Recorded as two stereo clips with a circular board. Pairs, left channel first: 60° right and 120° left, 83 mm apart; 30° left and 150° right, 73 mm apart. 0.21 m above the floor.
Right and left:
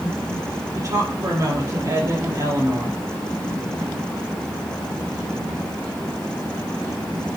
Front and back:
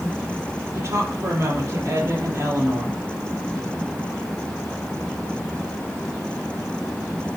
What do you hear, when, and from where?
0.8 s a woman speaking: 165° left, 5.5 m